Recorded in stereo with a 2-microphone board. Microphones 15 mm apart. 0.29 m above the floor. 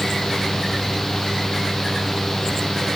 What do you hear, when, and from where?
Only background noise.